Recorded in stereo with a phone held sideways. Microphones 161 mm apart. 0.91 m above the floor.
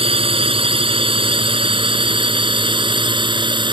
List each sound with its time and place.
0.0 s a drone: 35° right (ahead or behind); by 3.7 s 30° right (ahead or behind)